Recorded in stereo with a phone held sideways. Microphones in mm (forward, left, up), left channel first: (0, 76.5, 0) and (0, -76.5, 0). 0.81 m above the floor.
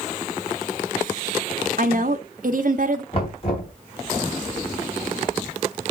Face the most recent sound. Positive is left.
turn(degrees=40)  # may be behind; listen again after turning